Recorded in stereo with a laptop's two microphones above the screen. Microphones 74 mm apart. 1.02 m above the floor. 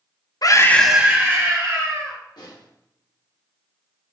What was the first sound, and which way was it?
A scream, 60° left (ahead or behind).